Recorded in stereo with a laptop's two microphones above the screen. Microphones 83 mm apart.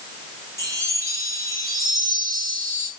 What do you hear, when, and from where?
0.6 s a chime: 40° right (ahead or behind), 6 m